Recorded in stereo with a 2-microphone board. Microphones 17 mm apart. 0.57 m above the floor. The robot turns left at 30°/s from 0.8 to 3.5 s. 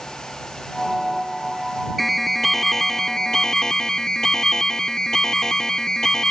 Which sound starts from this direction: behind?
An alarm, at 2.0 s.